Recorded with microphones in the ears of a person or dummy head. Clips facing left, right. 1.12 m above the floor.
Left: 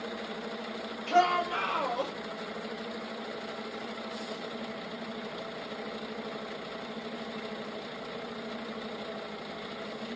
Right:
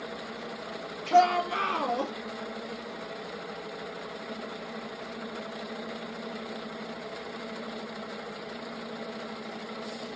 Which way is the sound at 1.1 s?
50° right (ahead or behind).